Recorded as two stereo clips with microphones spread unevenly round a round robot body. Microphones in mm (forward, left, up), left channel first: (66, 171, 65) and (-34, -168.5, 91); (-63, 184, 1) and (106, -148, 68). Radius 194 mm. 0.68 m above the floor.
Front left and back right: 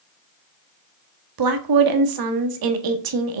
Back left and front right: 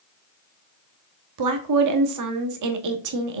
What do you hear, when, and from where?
1.4 s a woman speaking: 105° right, 1.5 m